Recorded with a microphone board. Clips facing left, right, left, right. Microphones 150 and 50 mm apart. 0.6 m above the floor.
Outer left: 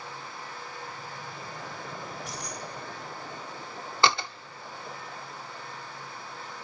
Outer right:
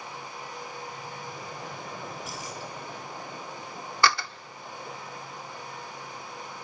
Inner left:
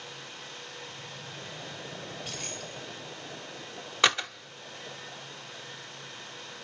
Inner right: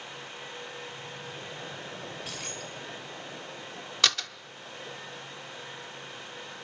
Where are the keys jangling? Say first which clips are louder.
Outer right 1 dB, inner right 1 dB; centre (ahead or behind), 1.7 m.